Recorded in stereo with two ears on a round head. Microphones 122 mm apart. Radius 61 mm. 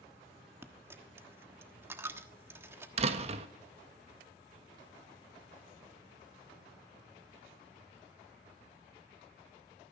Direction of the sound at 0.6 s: 15° right (ahead or behind).